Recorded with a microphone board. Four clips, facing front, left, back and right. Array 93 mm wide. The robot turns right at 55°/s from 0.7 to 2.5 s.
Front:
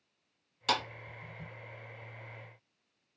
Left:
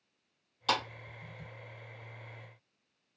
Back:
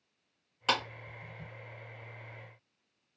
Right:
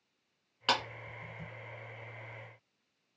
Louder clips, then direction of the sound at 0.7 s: Even, back 1 dB; 130° right.